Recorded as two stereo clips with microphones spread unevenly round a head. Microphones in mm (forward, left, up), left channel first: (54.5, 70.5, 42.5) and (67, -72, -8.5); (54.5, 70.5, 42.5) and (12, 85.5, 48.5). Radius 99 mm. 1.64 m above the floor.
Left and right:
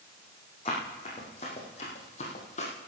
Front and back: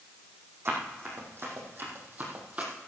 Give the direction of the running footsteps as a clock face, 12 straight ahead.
7 o'clock.